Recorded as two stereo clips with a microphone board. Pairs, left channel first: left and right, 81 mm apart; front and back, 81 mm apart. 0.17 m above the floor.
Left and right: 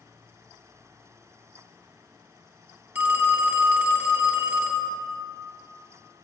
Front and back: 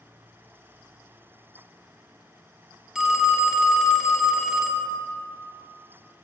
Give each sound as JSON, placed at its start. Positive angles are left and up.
{"t": 3.0, "sound": "a phone ringing", "azimuth_deg": -110, "distance_m": 0.6}